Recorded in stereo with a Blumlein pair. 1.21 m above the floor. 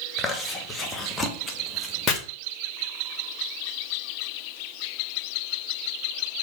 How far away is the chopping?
About 1.5 m.